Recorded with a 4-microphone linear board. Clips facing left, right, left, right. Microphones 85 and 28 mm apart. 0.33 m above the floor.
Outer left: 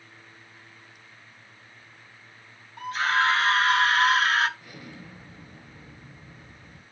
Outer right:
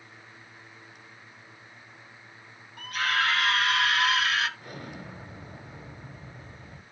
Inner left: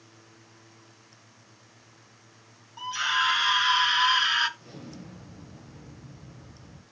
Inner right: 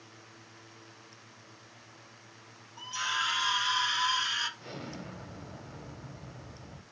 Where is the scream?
25° left (ahead or behind), 1.4 m; by 4.5 s 40° left (ahead or behind), 1.0 m.